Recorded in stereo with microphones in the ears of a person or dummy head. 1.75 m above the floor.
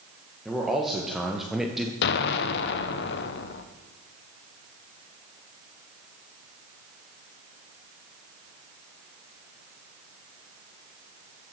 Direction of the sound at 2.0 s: 65° left (ahead or behind).